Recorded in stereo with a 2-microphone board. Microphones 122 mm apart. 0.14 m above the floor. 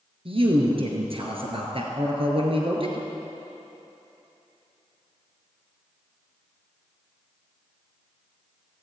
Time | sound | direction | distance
0.2 | a man speaking | 50° right (ahead or behind) | 2 m